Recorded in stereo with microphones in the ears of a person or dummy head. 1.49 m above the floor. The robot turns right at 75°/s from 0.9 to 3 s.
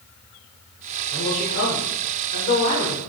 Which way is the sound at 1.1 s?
20° left.